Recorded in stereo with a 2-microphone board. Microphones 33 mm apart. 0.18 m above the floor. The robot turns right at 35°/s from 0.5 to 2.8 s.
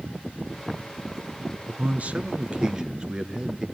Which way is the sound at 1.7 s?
65° right.